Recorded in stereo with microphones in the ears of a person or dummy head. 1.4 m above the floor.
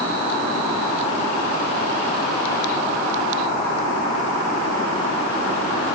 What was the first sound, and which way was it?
Only background noise.